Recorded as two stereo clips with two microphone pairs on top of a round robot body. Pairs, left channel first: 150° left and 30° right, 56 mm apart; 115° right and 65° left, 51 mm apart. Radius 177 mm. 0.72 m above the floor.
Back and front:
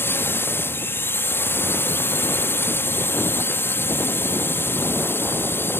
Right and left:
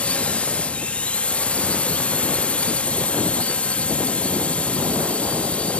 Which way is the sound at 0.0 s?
175° right.